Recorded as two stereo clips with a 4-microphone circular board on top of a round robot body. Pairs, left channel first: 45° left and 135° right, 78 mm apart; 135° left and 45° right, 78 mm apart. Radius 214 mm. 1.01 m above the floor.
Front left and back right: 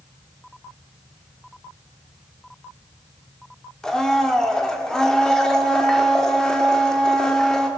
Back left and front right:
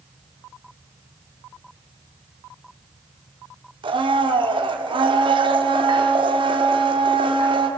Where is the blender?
35° right, 1.6 m.